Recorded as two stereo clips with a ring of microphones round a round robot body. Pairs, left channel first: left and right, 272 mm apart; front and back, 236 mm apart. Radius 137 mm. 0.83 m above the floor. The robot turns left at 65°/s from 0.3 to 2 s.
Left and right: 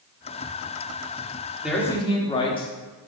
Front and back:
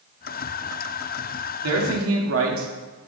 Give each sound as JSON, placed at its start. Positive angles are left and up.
{"t": 1.6, "sound": "a man speaking", "azimuth_deg": -175, "distance_m": 1.6}